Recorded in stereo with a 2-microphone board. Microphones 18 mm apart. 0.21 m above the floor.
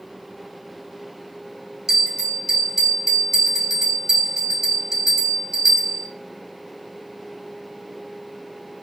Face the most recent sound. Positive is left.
turn(degrees=-25)  # may be behind; listen again after turning